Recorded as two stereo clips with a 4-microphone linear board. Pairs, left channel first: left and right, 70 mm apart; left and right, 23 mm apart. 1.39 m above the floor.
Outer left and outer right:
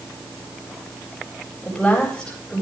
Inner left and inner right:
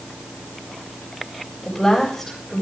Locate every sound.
1.6 s a woman speaking: 5° left (ahead or behind), 9 m